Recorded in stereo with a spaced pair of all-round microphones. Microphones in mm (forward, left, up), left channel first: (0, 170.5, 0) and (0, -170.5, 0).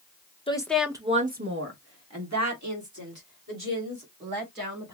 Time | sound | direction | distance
0.5 | a woman speaking | 15° left (ahead or behind) | 0.9 m